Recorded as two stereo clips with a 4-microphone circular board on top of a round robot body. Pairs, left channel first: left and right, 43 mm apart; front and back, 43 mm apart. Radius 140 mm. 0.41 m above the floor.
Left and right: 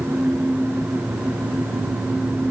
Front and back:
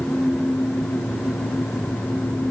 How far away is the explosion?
I don't hear an explosion.